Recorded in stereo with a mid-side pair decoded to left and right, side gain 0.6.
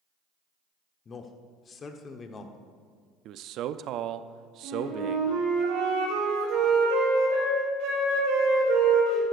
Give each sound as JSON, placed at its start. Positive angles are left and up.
{"t": 1.1, "sound": "a man speaking", "azimuth_deg": 35, "distance_m": 1.2}
{"t": 3.2, "sound": "a man speaking", "azimuth_deg": -60, "distance_m": 0.6}
{"t": 4.6, "sound": "a flute", "azimuth_deg": -70, "distance_m": 3.0}